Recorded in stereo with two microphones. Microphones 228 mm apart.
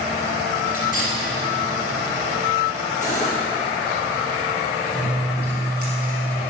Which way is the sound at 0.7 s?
40° left (ahead or behind).